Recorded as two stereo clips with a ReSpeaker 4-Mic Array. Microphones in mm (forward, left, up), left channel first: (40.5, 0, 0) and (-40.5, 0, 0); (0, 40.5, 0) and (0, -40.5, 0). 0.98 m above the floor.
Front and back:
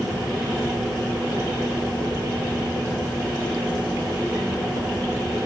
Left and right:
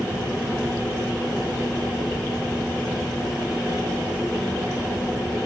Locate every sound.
0.0 s an insect: 170° right, 6.5 m